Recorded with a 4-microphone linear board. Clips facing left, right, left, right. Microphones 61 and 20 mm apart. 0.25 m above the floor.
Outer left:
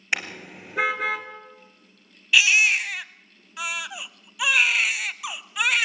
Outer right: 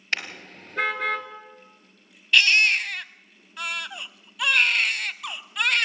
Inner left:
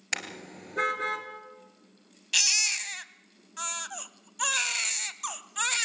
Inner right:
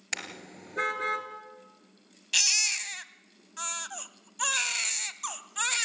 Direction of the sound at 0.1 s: 15° left (ahead or behind).